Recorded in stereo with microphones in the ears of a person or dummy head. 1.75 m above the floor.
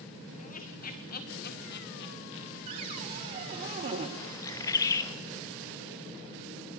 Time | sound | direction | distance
0.4 | laughter | 45° left (ahead or behind) | 2.5 m
2.7 | a cupboard door | 30° right (ahead or behind) | 1.5 m
4.2 | a bird | 15° left (ahead or behind) | 1.2 m